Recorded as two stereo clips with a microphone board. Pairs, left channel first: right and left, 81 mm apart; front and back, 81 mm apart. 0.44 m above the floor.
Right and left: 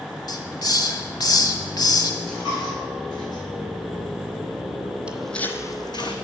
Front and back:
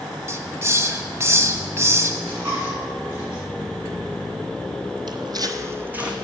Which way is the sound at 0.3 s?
125° right.